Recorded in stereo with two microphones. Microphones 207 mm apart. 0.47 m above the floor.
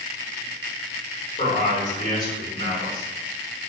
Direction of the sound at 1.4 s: 40° left (ahead or behind).